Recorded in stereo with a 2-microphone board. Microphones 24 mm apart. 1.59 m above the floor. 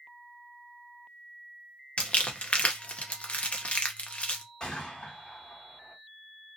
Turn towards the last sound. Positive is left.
turn(degrees=35)  # may be behind; listen again after turning